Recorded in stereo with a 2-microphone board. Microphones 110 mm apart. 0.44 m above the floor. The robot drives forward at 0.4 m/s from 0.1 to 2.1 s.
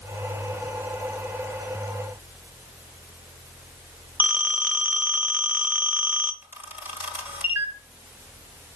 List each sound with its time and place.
4.2 s a phone ringing: 15° right (ahead or behind), 0.9 m
6.4 s a camera shutter: 20° right (ahead or behind), 1.7 m